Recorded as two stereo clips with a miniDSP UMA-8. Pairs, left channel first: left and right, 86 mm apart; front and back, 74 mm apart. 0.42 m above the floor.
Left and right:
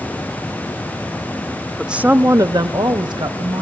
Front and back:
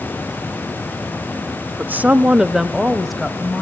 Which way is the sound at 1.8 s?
175° right.